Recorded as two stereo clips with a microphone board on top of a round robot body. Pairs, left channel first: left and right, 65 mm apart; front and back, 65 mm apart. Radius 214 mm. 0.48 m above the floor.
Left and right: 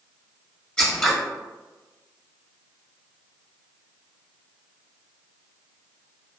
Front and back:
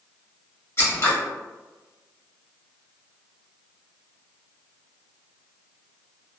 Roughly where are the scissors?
Ahead.